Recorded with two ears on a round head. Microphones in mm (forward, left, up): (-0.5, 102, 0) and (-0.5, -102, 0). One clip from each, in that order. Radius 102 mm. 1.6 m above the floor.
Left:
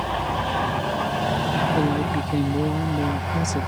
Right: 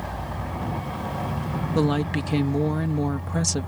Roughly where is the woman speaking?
Right.